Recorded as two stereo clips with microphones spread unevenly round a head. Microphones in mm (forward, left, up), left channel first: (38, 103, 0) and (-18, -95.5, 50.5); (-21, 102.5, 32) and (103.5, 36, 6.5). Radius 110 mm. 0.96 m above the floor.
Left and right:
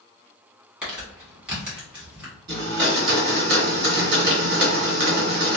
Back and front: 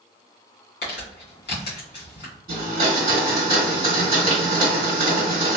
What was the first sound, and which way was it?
Crumpling, 170° left.